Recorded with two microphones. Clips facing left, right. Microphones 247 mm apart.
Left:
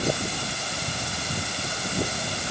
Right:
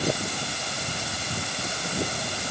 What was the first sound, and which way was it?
Only background noise.